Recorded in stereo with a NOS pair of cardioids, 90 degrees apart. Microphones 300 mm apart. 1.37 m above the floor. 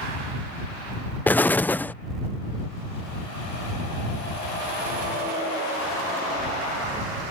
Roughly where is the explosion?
Ahead.